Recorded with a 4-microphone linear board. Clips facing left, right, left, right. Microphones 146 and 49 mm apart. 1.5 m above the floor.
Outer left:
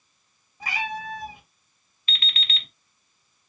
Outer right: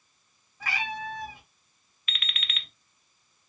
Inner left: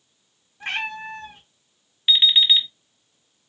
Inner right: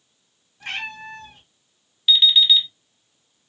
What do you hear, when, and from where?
0.6 s a cat meowing: 20° left (ahead or behind), 1.3 m
2.1 s an alarm clock: 30° left (ahead or behind), 0.6 m